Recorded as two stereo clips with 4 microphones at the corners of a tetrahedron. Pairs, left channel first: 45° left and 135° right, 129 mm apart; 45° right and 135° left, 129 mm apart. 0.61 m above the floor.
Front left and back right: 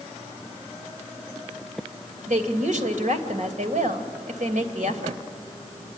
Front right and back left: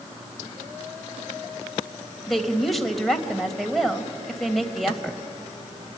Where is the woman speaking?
135° right, 2.5 m.